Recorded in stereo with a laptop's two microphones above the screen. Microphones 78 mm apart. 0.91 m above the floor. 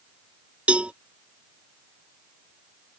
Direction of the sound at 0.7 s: 15° right (ahead or behind).